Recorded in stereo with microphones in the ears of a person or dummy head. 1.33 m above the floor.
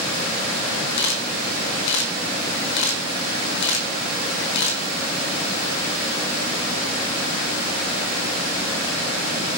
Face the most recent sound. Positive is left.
turn(degrees=65)  # may be behind; listen again after turning